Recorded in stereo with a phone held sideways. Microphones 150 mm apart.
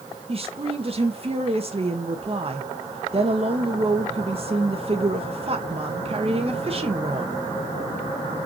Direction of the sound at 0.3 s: 40° right (ahead or behind).